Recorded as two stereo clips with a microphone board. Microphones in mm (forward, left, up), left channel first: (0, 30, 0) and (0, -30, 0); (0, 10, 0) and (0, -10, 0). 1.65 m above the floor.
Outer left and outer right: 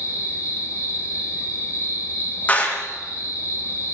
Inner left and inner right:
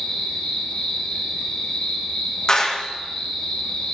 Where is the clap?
25° left (ahead or behind), 1.9 m.